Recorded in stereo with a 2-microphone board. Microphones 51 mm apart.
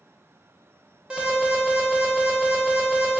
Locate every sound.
1.1 s an alarm: 20° right (ahead or behind), 0.8 m